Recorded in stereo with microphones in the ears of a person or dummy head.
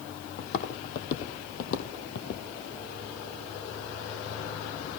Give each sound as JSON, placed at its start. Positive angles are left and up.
{"t": 0.4, "sound": "footsteps", "side_deg": 55, "distance_m": 2.5}